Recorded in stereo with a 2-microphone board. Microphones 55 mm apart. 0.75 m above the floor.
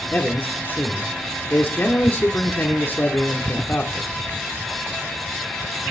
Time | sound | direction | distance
0.1 | a man speaking | 35° left (ahead or behind) | 1.7 m